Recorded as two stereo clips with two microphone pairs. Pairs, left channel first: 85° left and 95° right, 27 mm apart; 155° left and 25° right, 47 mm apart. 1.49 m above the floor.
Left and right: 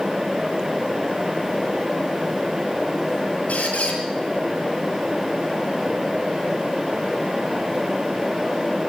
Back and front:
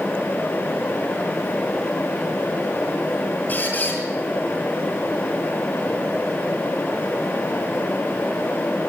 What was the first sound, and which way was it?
A squeak, 105° left.